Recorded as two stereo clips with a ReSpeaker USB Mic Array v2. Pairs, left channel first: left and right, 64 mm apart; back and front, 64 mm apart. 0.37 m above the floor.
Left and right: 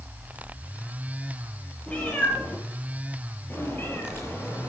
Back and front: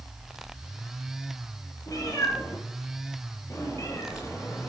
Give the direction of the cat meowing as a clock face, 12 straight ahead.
7 o'clock.